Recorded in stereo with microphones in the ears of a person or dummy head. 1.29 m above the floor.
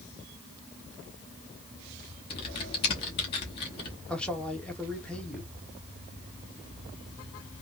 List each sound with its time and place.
2.3 s typing on a keyboard: 30° left (ahead or behind), 0.8 m
4.1 s a man speaking: 5° left (ahead or behind), 1.1 m